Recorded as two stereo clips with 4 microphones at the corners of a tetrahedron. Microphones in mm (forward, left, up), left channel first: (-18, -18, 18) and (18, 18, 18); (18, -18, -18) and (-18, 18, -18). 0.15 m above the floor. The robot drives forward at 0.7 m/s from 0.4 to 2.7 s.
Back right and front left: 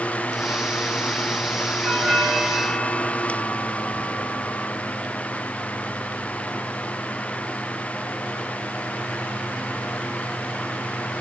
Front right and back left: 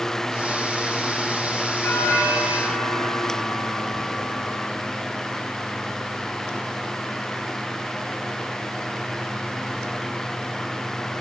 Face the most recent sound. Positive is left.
turn(degrees=-45)